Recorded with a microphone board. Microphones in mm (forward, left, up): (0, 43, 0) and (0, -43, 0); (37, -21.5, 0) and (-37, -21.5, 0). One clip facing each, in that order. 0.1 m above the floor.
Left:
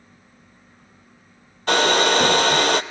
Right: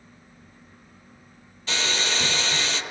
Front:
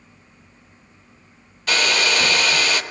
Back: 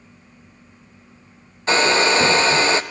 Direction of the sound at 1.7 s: 120° left.